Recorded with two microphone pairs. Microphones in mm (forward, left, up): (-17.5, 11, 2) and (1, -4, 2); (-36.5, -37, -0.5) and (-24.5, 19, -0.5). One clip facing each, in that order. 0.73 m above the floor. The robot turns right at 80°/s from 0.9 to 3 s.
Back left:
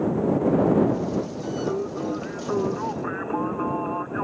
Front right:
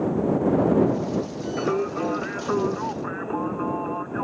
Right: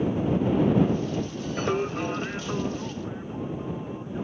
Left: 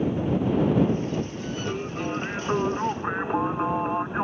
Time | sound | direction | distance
1.6 | singing | 55° right | ?